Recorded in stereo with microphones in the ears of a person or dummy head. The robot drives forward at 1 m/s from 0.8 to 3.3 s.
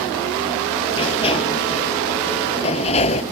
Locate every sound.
0.9 s a sliding door: 30° left (ahead or behind); by 3.2 s 35° left (ahead or behind)